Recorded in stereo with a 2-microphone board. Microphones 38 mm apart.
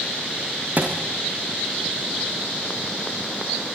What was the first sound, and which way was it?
A thud, 45° right (ahead or behind).